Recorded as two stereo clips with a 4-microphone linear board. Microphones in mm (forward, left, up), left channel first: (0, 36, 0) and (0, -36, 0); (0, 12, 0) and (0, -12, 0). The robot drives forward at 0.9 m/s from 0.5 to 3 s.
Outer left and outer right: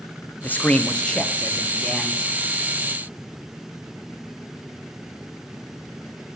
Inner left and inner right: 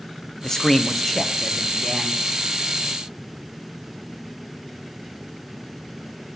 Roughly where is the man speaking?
Left.